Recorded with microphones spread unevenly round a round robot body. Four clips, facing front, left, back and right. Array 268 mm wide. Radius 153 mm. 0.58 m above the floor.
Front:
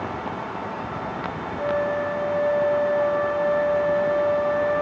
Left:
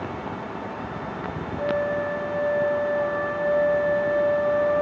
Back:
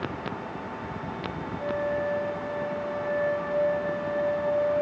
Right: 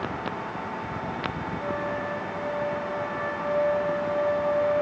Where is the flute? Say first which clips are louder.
Left 7 dB, front 5 dB; 35° left, 6.5 m.